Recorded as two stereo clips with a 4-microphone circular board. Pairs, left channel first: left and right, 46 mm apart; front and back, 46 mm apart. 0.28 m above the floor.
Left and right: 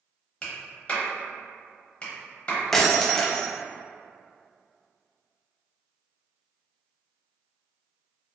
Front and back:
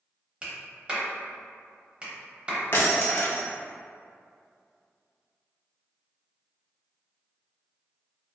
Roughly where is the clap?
Behind left.